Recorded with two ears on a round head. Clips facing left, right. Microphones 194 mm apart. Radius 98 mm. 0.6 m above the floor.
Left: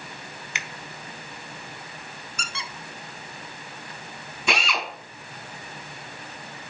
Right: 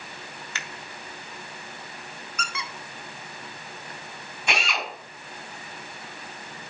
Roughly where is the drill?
Left.